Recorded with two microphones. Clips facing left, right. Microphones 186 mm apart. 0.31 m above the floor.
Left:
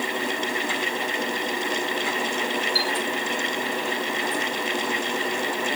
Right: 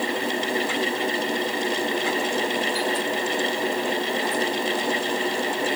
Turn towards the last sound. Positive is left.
turn(degrees=-55)  # may be behind; listen again after turning